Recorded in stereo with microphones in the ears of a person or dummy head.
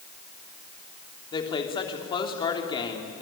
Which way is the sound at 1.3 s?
30° left (ahead or behind).